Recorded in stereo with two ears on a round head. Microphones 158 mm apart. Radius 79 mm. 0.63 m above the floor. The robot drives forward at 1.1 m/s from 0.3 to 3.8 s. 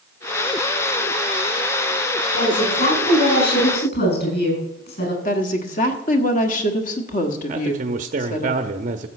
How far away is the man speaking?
About 0.7 m.